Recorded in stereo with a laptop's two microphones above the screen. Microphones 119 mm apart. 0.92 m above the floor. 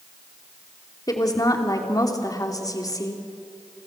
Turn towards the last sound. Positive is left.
turn(degrees=30)  # may be behind; listen again after turning